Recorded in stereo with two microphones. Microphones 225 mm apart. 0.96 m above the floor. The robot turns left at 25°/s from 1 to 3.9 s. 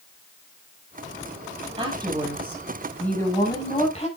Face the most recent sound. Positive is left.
turn(degrees=150)